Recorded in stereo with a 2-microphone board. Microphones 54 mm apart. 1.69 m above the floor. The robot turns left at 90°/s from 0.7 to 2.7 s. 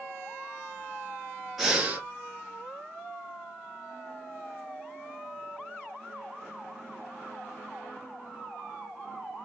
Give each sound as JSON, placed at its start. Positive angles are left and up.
{"t": 1.6, "sound": "breathing", "azimuth_deg": -5, "distance_m": 1.2}